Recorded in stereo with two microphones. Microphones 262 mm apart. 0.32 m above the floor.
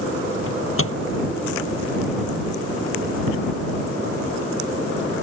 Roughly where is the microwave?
Left.